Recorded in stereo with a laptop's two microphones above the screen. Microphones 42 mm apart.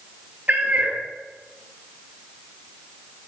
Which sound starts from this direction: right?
A cat meowing, at 0.5 s.